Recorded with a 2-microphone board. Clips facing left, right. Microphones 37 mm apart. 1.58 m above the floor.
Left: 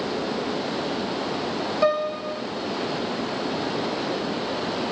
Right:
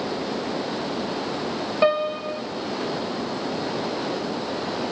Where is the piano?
25° right (ahead or behind), 1.2 m.